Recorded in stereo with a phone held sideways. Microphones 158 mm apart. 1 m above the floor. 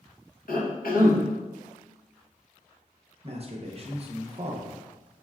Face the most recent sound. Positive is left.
turn(degrees=-45)  # may be behind; listen again after turning